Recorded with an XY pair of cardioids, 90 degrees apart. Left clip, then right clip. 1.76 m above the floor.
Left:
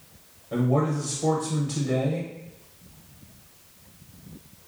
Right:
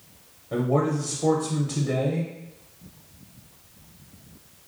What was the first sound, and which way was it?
A man speaking, 20° right.